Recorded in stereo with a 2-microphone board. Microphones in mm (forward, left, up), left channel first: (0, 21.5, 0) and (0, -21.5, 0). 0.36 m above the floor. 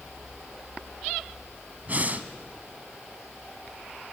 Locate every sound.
1.9 s breathing: 40° right (ahead or behind), 1.1 m